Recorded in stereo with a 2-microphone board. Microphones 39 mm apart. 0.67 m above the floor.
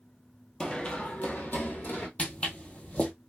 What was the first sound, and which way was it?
Running footsteps, 20° left (ahead or behind).